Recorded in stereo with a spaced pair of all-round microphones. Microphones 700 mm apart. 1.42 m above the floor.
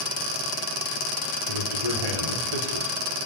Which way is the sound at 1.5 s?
55° left (ahead or behind).